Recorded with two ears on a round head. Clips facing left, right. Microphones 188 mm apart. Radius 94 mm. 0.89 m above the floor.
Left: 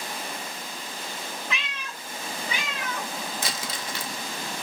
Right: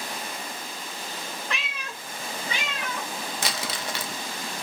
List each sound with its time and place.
1.5 s a cat meowing: centre (ahead or behind), 0.6 m; by 3.1 s 30° right (ahead or behind), 1.7 m
3.4 s crumpling: 55° right (ahead or behind), 0.6 m